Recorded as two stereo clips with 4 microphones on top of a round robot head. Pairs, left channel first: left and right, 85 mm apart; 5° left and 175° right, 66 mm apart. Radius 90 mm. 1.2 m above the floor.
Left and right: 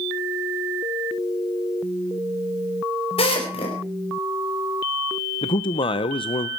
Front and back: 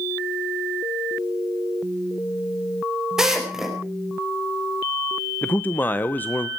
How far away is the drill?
About 4.5 m.